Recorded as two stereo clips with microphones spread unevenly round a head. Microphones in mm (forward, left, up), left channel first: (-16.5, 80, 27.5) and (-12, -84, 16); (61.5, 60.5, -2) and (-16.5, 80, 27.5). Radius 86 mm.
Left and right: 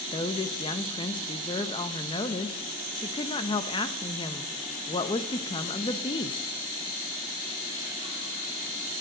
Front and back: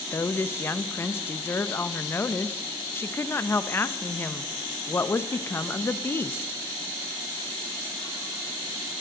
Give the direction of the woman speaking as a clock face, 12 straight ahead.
11 o'clock.